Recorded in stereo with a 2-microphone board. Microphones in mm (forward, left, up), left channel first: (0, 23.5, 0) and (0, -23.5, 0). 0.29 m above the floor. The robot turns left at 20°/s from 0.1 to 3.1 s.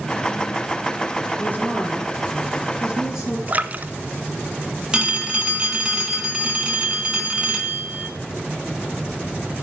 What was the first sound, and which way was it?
A woman speaking, 135° left.